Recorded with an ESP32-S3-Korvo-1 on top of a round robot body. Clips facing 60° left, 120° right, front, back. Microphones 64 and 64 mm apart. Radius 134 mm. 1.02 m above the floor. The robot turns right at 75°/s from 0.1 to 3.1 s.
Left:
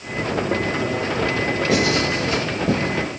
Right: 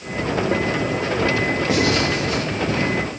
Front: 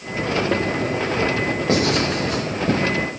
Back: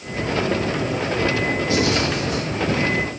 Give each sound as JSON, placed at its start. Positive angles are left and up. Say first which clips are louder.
{"t": 1.7, "sound": "writing", "louder": "even, front 3 dB", "azimuth_deg": -35, "distance_m": 5.0}